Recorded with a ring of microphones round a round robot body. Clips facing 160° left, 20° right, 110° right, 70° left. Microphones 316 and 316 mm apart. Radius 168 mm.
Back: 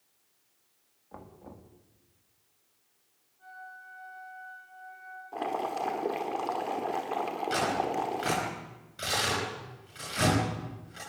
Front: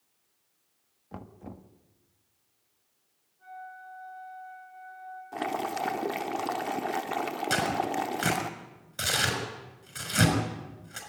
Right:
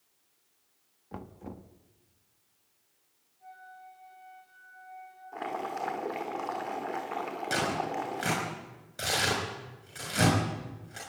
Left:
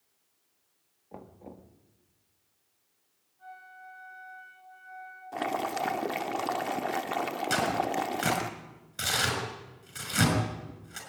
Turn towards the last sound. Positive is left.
turn(degrees=0)